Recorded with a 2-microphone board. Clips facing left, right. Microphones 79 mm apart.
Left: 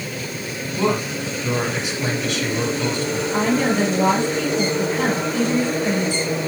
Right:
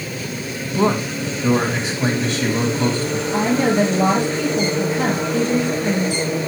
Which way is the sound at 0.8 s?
35° right (ahead or behind).